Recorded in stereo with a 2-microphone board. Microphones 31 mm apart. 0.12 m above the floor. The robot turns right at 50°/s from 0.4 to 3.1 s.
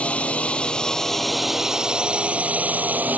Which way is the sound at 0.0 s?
130° left.